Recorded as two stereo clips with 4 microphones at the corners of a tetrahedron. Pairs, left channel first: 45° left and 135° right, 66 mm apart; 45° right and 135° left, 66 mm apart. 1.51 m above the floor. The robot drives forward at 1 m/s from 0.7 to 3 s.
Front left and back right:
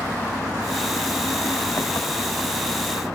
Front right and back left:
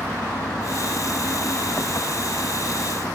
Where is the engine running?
Straight ahead.